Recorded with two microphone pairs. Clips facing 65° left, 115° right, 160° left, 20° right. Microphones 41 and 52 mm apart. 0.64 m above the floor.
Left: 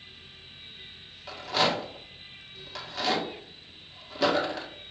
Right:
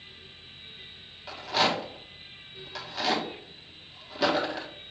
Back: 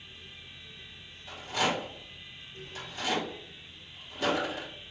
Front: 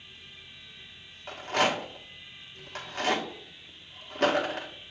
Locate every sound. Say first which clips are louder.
1.3 s a rattle: even, front 3 dB; 30° right, 1.1 m